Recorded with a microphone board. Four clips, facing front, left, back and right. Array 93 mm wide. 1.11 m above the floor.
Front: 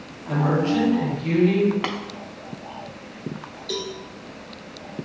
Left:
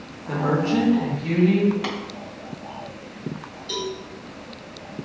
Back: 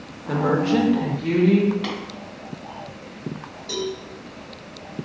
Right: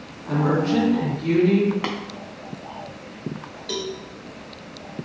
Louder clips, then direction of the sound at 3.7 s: Even, back 3 dB; 110° right.